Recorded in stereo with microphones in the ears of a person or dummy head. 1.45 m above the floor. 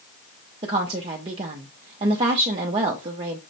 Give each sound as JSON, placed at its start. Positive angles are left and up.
{"t": 0.6, "sound": "a woman speaking", "side_deg": -30, "distance_m": 0.6}